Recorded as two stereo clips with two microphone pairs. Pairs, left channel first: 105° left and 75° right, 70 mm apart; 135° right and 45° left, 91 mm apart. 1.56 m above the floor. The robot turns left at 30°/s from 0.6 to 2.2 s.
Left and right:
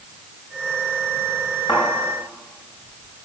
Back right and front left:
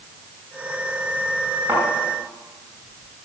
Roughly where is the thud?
Left.